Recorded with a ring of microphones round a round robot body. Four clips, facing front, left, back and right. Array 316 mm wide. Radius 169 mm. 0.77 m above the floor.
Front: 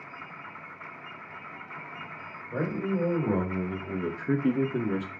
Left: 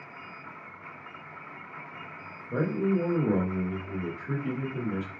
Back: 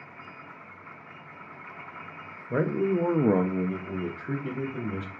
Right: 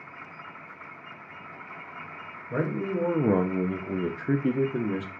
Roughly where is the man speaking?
Behind.